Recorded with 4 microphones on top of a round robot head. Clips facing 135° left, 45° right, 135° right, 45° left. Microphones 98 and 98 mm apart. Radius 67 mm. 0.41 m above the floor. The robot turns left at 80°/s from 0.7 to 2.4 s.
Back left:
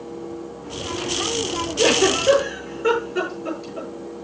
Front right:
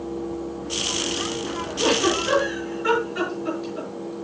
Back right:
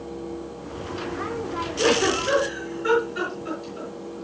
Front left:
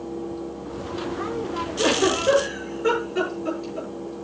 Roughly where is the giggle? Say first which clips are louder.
Back left 3 dB, even; behind left.